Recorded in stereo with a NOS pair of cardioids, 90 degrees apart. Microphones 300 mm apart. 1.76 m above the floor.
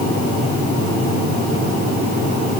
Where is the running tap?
I don't hear a running tap.